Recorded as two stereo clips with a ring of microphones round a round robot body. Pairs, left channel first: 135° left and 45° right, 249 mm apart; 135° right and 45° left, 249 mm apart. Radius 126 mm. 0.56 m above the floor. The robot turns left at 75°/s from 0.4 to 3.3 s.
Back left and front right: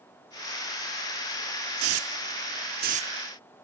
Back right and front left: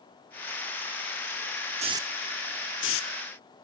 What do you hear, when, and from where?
1.8 s a hiss: 15° right; by 3.1 s 115° right